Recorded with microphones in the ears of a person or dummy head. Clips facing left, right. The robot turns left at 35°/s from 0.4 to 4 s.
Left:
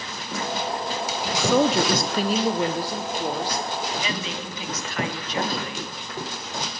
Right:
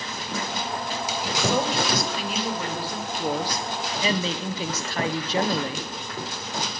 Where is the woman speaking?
65° left, 1.2 m; by 5.9 s 25° right, 1.2 m.